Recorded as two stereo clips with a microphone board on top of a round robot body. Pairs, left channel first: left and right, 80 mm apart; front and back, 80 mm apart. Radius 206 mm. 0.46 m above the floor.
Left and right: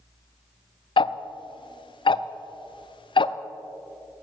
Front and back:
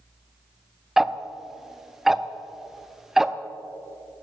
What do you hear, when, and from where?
1.0 s ticking: 95° left, 0.5 m